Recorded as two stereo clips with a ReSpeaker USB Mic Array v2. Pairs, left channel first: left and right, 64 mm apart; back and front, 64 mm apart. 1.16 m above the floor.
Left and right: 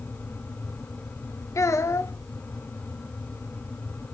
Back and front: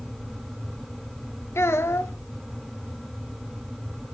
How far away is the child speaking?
About 0.7 m.